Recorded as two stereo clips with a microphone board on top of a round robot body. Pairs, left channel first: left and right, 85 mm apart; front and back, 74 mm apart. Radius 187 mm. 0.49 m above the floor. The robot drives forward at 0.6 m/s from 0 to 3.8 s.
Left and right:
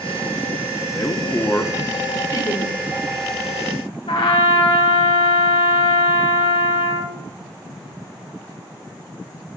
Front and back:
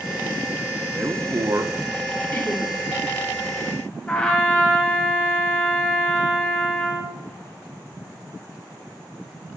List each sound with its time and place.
0.9 s a man speaking: 135° left, 1.0 m; by 1.8 s 155° left, 1.3 m
2.3 s laughter: 55° left, 3 m; by 2.7 s 60° left, 3 m
4.1 s a trumpet: 75° left, 1.6 m